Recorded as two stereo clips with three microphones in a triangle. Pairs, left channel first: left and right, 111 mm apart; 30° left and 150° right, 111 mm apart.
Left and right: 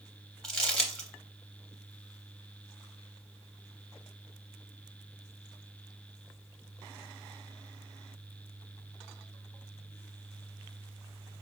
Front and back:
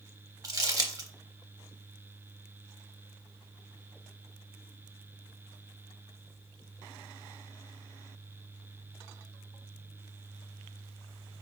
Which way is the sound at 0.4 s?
170° left.